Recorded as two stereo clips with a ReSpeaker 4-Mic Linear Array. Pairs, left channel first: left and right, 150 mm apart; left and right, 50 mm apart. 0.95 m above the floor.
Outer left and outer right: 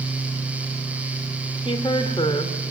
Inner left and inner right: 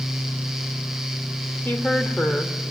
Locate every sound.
1.6 s a woman speaking: 35° left (ahead or behind), 3 m